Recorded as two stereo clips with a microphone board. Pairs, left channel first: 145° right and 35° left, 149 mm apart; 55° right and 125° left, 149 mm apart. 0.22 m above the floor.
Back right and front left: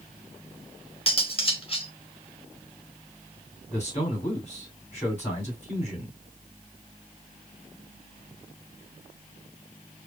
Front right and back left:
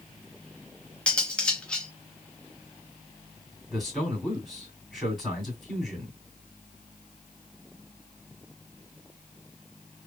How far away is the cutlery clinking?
About 0.7 m.